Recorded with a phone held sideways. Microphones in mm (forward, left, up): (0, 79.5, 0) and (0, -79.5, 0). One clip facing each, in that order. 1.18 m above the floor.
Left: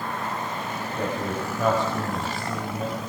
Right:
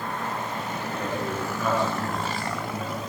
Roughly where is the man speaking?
Left.